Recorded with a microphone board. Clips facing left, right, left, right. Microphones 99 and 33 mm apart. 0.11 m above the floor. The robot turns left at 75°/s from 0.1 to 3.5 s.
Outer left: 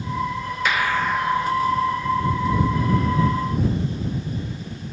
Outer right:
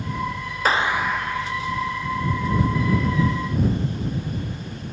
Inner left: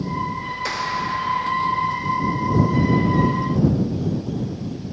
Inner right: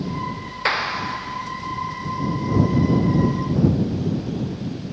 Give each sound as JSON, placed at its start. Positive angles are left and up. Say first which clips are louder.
{"t": 0.7, "sound": "a clap", "louder": "outer right 1 dB, inner right 3 dB", "azimuth_deg": -145}